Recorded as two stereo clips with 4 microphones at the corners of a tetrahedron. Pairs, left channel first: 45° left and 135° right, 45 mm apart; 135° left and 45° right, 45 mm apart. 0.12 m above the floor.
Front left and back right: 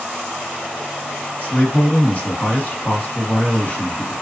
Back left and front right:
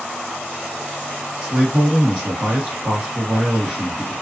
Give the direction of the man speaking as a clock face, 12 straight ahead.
12 o'clock.